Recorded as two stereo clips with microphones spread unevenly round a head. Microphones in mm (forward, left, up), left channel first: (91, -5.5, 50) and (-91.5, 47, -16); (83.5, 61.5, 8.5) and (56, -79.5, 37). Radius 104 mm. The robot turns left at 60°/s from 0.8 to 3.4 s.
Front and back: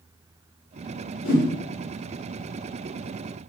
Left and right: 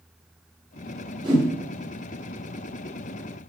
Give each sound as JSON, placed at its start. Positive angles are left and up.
{"t": 1.2, "sound": "a whoosh", "azimuth_deg": -40, "distance_m": 2.5}